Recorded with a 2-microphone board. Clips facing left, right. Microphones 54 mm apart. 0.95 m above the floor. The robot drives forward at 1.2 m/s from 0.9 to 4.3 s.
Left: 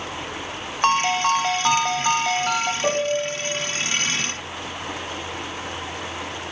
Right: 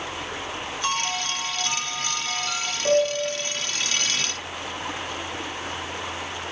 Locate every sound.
0.8 s a ringtone: 50° left (ahead or behind), 1.5 m; by 2.7 s 40° left (ahead or behind), 1.7 m
2.8 s a piano: 60° left (ahead or behind), 3.5 m; by 3.4 s 50° left (ahead or behind), 4 m